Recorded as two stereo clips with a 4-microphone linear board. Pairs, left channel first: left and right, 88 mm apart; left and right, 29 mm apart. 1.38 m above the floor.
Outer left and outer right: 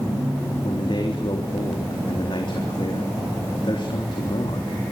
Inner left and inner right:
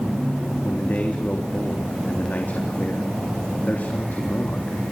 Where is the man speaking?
65° left (ahead or behind), 3.5 m.